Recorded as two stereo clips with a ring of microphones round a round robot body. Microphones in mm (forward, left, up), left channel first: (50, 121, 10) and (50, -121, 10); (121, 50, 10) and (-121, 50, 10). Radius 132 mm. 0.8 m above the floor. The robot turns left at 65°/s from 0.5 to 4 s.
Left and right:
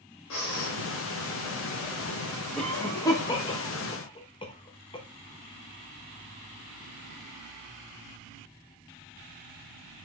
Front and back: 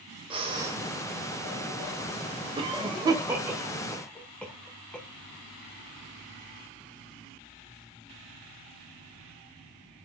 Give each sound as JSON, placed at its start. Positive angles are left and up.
{"t": 0.3, "sound": "breathing", "azimuth_deg": 115, "distance_m": 0.7}
{"t": 2.6, "sound": "a cough", "azimuth_deg": 170, "distance_m": 0.6}